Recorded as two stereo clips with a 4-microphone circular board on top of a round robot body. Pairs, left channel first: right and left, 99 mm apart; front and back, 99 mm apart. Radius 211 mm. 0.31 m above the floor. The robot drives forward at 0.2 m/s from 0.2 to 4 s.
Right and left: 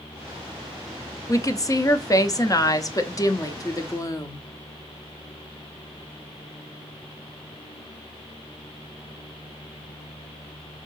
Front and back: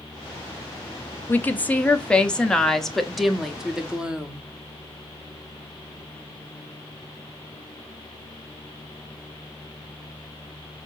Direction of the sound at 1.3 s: 60° right.